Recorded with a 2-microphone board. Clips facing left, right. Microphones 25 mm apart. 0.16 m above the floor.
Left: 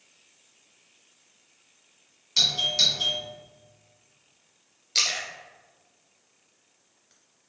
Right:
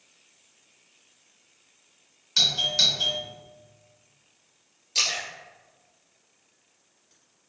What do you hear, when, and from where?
2.4 s a doorbell: 5° right (ahead or behind), 1.9 m
5.0 s a splash: 35° left (ahead or behind), 2.0 m